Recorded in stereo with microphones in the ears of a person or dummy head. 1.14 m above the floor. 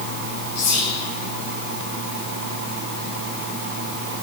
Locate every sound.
0.6 s whispering: 55° left (ahead or behind), 1.0 m